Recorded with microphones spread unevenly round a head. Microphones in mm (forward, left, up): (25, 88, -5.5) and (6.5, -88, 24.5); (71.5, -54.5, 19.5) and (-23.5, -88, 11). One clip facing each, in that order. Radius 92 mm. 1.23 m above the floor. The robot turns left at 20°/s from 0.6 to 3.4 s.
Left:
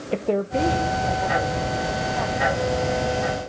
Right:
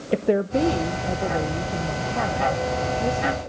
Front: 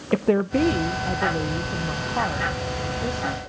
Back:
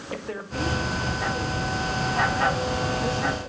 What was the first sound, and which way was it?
A woman speaking, 20° right.